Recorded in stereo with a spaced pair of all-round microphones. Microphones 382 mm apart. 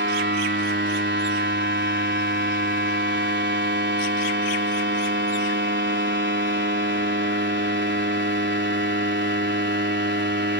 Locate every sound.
0.0 s a machine running: 25° right (ahead or behind)